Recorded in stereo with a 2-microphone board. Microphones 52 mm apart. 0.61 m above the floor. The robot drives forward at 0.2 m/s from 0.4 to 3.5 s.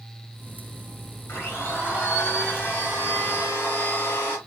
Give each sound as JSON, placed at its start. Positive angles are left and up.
{"t": 1.3, "sound": "a blender", "side_deg": 40, "distance_m": 4.5}